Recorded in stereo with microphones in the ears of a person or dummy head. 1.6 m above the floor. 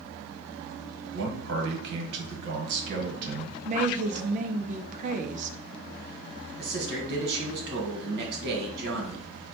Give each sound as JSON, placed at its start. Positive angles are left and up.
{"t": 1.1, "sound": "a man speaking", "side_deg": -75, "distance_m": 1.3}
{"t": 3.6, "sound": "a woman speaking", "side_deg": -55, "distance_m": 0.5}
{"t": 6.6, "sound": "a man speaking", "side_deg": -70, "distance_m": 1.8}